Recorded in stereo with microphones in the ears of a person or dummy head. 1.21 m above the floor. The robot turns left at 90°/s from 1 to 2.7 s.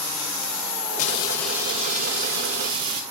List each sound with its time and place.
1.0 s frying: 45° left, 2.5 m; by 3.0 s 110° right, 2.5 m